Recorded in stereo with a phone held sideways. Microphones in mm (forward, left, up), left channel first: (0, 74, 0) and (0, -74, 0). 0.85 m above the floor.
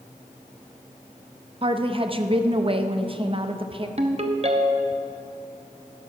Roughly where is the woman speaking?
Right.